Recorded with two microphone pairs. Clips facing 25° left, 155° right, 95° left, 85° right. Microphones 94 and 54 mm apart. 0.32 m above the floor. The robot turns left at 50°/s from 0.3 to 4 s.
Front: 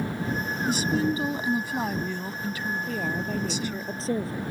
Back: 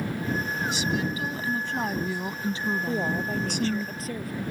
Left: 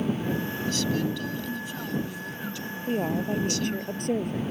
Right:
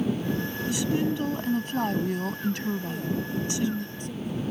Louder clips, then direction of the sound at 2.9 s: Back 2 dB, left 4 dB; 140° left.